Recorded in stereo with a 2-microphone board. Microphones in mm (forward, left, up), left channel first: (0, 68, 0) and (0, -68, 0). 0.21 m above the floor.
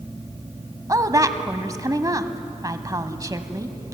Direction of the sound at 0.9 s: 25° right (ahead or behind).